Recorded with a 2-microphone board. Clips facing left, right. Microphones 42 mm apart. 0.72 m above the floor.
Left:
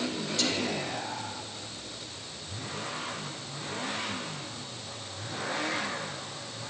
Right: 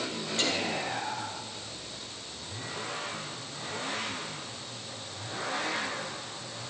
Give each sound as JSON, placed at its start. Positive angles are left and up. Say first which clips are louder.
{"t": 0.4, "sound": "whispering", "louder": "right 1 dB", "side_deg": -30, "distance_m": 1.2}